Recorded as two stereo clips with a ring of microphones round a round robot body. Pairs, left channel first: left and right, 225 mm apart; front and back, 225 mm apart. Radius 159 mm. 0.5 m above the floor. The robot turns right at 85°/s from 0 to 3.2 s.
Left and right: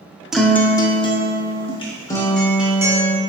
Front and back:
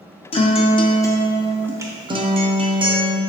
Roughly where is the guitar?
Ahead.